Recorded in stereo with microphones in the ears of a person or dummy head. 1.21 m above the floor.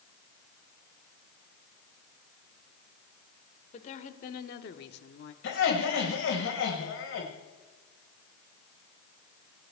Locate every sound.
3.7 s a woman speaking: 40° left (ahead or behind), 1.8 m; by 5.3 s 60° left (ahead or behind), 1.0 m
5.4 s laughter: 65° left (ahead or behind), 5 m